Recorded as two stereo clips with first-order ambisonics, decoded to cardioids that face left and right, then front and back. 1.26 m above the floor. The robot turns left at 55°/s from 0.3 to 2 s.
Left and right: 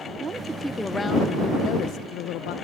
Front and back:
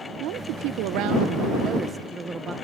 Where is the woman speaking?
160° right; by 2.5 s 110° left.